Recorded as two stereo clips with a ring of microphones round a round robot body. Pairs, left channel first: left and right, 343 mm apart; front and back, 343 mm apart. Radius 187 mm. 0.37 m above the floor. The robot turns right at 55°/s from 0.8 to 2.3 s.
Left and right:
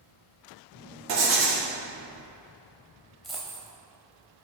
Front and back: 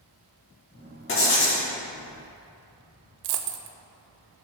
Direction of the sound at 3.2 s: Straight behind.